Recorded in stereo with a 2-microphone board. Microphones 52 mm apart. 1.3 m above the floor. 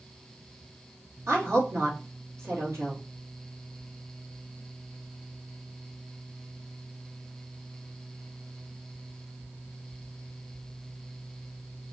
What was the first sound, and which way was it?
A woman speaking, 65° right (ahead or behind).